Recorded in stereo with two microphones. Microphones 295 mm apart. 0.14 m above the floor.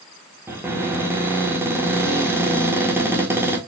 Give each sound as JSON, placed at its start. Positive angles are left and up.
{"t": 0.5, "sound": "a cupboard door", "side_deg": -10, "distance_m": 1.3}